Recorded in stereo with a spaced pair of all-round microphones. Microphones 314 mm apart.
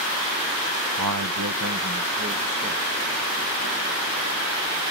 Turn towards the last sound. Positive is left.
turn(degrees=-30)  # may be behind; listen again after turning